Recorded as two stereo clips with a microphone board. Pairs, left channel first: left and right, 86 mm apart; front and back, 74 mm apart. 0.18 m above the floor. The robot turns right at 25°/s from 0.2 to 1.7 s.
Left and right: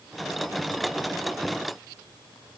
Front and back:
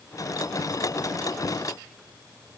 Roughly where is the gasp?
No gasp in this recording.